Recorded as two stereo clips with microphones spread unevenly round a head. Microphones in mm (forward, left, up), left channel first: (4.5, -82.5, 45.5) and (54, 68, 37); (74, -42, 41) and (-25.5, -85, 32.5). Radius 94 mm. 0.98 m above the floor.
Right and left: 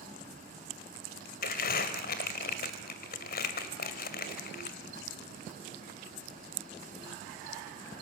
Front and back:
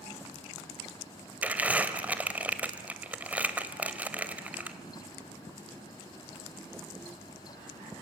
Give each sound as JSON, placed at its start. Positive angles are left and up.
{"t": 1.4, "sound": "crumpling", "azimuth_deg": -80, "distance_m": 2.0}